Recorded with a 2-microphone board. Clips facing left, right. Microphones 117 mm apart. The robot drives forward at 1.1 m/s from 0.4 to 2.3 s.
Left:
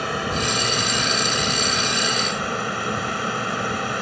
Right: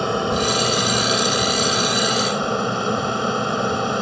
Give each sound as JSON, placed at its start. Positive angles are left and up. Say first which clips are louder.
{"t": 0.0, "sound": "an aircraft", "louder": "right 5 dB", "side_deg": -25}